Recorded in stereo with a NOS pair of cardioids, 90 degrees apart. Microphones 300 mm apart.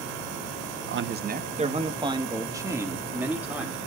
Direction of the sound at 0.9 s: 45° right.